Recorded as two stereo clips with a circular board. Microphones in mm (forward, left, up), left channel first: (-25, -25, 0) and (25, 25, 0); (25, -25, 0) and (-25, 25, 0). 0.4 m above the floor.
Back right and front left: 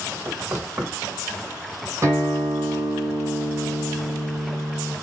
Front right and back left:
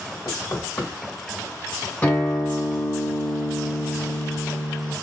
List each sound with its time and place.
0.2 s knocking: 5° left, 1.7 m
2.0 s a guitar: 15° left, 2 m